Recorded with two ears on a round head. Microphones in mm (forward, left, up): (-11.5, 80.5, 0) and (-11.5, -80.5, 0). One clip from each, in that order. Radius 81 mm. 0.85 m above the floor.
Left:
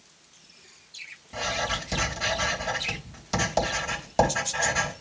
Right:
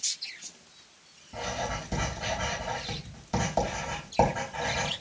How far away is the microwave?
No microwave in this recording.